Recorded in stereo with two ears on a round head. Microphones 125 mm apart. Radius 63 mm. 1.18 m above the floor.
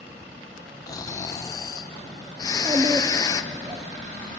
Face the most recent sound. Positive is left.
turn(degrees=-20)  # may be behind; listen again after turning